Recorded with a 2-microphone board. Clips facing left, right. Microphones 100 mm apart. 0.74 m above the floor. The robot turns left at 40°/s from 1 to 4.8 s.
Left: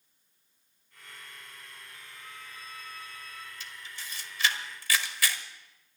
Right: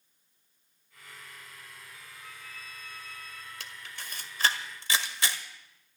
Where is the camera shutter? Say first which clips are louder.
Right 1 dB; 75° right (ahead or behind), 1.3 m; by 5.4 s 25° right (ahead or behind), 1.3 m.